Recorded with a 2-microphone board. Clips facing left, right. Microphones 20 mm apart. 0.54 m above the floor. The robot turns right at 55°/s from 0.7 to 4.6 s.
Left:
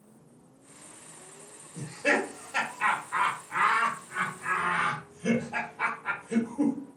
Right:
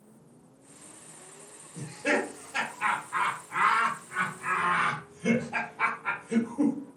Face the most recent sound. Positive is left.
turn(degrees=-15)  # may be behind; listen again after turning